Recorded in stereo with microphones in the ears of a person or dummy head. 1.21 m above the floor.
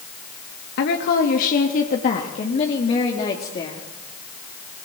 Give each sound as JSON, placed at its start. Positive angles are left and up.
{"t": 0.8, "sound": "a woman speaking", "side_deg": 60, "distance_m": 1.8}